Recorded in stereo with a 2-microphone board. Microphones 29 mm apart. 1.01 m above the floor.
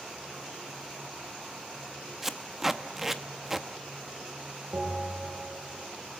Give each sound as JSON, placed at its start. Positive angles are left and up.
{"t": 2.2, "sound": "tape being pulled", "side_deg": -10, "distance_m": 0.8}
{"t": 4.7, "sound": "a bell", "side_deg": -85, "distance_m": 8.0}